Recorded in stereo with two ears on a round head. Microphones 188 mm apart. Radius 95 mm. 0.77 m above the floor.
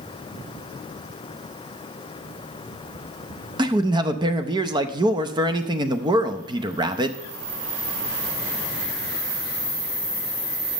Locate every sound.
3.6 s a man speaking: 20° right (ahead or behind), 0.6 m